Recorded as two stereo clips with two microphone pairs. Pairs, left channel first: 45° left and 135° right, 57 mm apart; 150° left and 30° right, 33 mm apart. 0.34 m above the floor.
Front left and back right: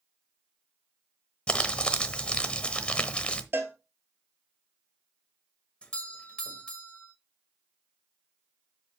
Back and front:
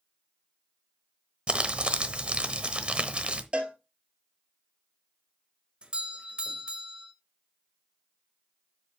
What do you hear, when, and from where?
1.5 s crumpling: 15° right, 1.0 m
3.5 s a cowbell: 85° right, 1.4 m
5.8 s a doorbell: 10° right, 1.5 m